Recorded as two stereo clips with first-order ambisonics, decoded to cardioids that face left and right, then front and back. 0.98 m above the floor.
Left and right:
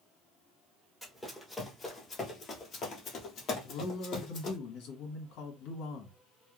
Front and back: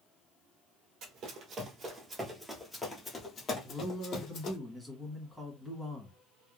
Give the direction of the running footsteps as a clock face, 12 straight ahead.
6 o'clock.